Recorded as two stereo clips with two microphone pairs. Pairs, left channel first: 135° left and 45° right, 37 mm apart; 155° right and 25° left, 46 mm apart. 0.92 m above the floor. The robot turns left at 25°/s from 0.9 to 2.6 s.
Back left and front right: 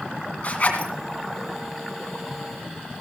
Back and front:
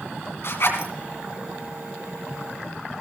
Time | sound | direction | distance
0.4 | a zipper | 175° right | 2.5 m